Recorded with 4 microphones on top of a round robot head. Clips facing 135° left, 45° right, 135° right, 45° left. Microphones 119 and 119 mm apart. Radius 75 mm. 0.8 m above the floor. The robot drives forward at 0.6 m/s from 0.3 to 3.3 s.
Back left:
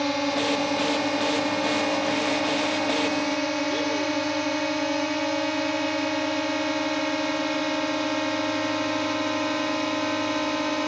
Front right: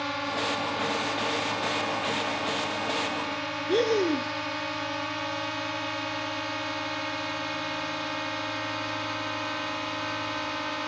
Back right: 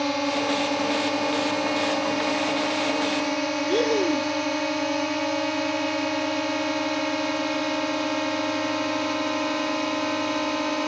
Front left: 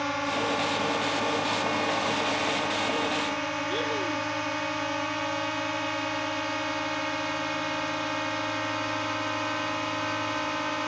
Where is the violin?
I don't hear a violin.